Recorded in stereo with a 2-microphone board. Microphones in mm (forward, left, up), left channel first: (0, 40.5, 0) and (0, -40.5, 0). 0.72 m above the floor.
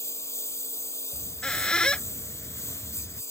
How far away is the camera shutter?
No camera shutter in this recording.